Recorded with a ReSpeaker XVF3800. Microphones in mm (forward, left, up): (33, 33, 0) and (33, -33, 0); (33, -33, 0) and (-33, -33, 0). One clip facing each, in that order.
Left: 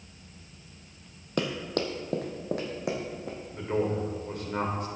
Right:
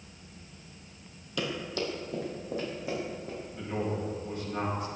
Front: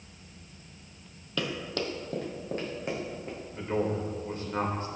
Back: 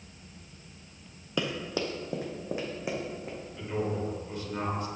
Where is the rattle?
No rattle in this recording.